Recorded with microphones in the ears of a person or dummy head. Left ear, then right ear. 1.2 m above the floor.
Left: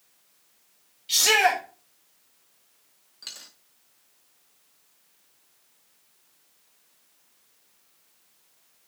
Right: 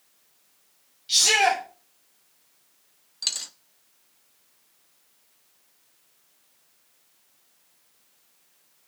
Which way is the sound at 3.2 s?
20° right (ahead or behind).